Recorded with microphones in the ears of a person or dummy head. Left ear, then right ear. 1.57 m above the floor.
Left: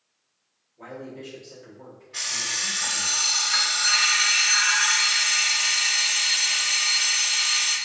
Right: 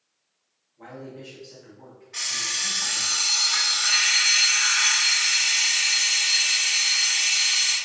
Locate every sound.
0.8 s a man speaking: centre (ahead or behind), 1.5 m
2.1 s an alarm clock: 35° right (ahead or behind), 1.7 m